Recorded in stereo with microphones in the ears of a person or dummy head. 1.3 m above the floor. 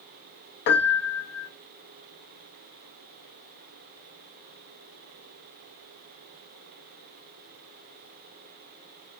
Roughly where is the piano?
Left.